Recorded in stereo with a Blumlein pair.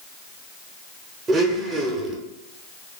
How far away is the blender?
About 0.6 m.